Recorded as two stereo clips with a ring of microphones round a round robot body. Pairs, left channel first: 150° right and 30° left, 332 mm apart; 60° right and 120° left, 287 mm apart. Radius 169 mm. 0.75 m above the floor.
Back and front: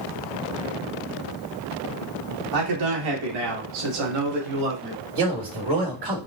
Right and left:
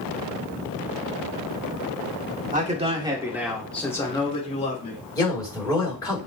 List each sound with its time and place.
2.5 s a man speaking: 55° left, 2.0 m; by 5.0 s straight ahead, 2.5 m
5.2 s a man speaking: 20° left, 4 m